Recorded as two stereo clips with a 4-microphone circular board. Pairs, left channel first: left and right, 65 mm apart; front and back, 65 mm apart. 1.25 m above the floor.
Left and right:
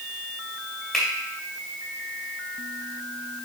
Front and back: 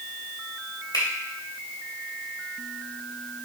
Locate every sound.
0.9 s a finger snap: 15° left, 2.5 m